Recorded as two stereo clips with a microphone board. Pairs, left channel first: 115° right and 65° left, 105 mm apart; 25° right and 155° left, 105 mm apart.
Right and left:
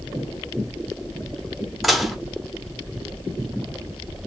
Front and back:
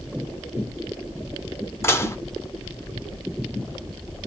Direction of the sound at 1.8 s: 20° right.